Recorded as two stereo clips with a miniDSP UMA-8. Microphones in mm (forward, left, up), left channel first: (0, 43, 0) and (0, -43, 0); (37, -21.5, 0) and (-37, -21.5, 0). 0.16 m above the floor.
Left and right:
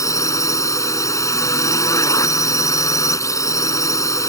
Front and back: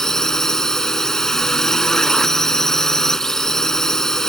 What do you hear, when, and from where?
0.0 s a drone: 80° left